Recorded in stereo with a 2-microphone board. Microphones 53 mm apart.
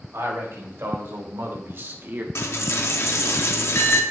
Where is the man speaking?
60° right (ahead or behind), 2.5 m; by 2.2 s 35° right (ahead or behind), 1.1 m.